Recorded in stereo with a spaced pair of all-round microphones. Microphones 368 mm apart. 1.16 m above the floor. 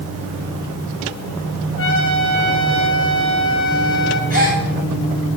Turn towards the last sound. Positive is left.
turn(degrees=75)  # may be behind; listen again after turning